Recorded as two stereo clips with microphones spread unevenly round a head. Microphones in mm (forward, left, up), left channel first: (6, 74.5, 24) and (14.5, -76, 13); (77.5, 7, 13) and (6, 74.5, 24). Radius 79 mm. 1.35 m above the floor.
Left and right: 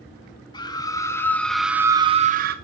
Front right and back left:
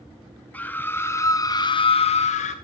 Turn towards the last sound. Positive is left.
turn(degrees=-60)